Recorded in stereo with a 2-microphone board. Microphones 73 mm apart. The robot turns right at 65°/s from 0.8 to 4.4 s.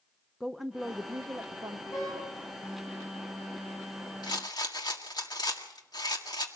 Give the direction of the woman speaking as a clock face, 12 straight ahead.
6 o'clock.